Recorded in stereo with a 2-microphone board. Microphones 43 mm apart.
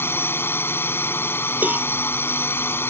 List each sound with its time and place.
0.0 s a drone: 65° left (ahead or behind)
1.6 s a cowbell: 45° right (ahead or behind)